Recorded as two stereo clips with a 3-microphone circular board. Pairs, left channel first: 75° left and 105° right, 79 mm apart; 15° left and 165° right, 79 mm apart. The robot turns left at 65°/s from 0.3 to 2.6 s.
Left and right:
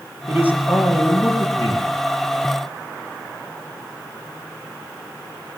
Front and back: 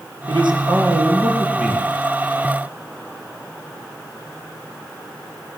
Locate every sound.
0.3 s a man speaking: 165° right, 8 m; by 1.9 s 95° left, 8 m